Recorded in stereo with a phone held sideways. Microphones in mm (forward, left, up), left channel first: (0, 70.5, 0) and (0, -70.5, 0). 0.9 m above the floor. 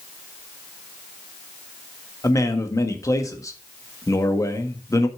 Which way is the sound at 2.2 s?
25° left (ahead or behind).